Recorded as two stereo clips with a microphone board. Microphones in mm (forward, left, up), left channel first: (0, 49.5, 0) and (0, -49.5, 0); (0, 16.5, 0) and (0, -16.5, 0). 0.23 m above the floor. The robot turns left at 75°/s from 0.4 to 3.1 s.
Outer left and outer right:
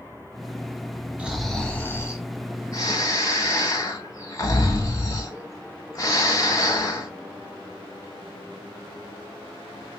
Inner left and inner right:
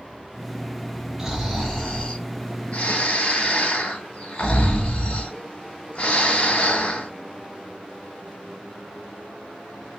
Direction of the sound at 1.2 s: 160° right.